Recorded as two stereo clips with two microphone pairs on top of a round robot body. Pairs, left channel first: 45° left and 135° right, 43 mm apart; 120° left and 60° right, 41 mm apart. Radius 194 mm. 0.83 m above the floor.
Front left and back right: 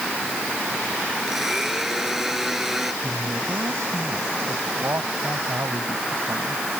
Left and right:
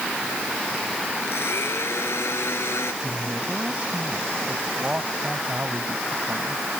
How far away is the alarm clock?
I don't hear an alarm clock.